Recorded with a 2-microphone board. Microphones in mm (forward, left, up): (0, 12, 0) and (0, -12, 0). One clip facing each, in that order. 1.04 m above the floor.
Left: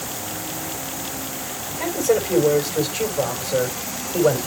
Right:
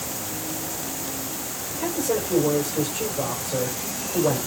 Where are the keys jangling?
I don't hear keys jangling.